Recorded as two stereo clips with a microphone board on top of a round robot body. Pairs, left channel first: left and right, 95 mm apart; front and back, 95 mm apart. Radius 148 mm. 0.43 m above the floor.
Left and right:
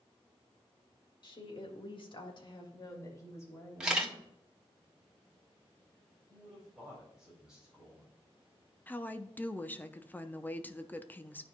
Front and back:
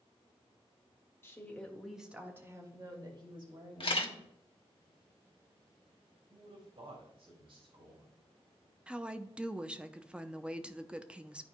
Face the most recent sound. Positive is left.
turn(degrees=120)